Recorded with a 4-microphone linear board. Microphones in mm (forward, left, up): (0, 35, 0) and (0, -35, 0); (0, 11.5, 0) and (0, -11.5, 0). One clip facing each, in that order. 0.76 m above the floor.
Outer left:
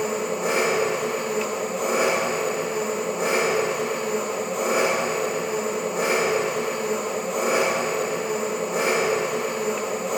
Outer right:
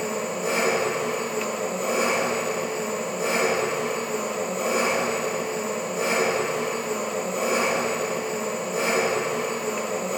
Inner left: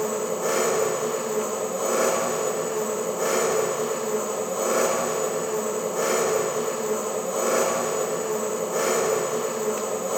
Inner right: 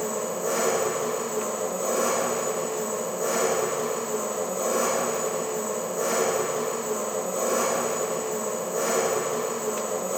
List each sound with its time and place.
0.0 s an engine running: 70° left (ahead or behind), 1.4 m